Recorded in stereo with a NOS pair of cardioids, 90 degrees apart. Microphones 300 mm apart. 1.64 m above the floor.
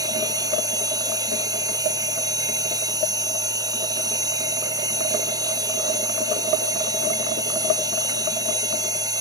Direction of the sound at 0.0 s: 10° right.